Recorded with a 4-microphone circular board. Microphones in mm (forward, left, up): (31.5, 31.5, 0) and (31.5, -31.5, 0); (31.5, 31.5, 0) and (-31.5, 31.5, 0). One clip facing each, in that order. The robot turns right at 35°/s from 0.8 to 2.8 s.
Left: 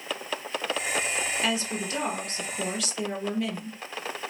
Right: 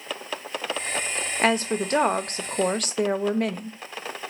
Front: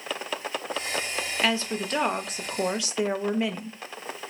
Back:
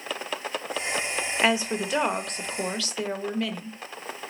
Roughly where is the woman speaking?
Behind right.